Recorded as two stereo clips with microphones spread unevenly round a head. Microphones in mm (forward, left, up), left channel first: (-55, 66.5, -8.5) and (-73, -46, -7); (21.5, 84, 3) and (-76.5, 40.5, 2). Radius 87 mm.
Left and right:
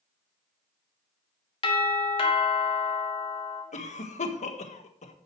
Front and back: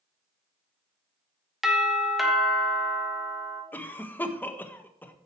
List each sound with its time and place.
1.6 s a doorbell: 115° left, 2.5 m
3.7 s a cough: 95° left, 1.6 m